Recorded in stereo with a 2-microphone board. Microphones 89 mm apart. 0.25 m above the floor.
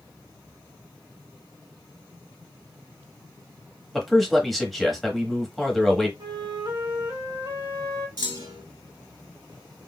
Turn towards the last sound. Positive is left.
turn(degrees=-55)  # may be behind; listen again after turning